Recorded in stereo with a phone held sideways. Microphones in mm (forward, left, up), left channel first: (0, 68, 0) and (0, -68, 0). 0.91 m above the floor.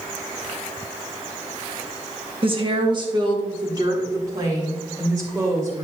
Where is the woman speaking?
40° right (ahead or behind), 1.3 m; by 5.8 s 25° right (ahead or behind), 3.5 m.